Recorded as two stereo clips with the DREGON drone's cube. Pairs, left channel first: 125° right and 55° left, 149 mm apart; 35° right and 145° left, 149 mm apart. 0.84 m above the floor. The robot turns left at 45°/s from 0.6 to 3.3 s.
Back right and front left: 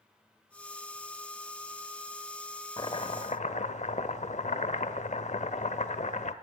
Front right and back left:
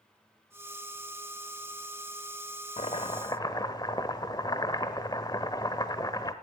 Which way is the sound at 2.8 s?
70° right.